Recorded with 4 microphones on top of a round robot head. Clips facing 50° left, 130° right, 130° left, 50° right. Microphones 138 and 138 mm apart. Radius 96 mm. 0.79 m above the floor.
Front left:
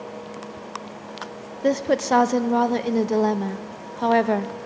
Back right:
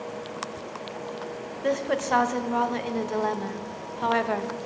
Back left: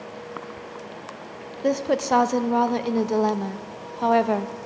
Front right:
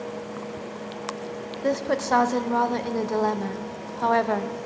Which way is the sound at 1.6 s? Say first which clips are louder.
Front left 5 dB, back left 2 dB; 65° left.